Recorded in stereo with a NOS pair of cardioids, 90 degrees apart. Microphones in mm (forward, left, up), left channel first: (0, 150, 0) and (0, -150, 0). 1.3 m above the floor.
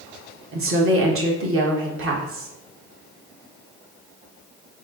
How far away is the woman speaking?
About 1.2 m.